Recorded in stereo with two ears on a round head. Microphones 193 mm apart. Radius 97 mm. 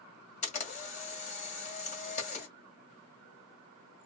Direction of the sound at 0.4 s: 30° left (ahead or behind).